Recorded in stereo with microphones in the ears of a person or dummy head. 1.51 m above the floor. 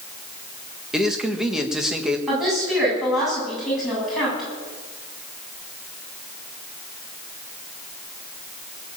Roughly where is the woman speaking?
Centre.